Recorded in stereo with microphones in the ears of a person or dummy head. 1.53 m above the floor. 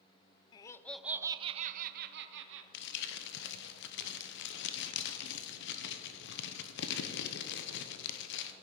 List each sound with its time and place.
0.5 s laughter: 25° left (ahead or behind), 0.6 m; by 2.6 s 65° right (ahead or behind), 1.0 m
2.7 s crumpling: 60° left (ahead or behind), 0.9 m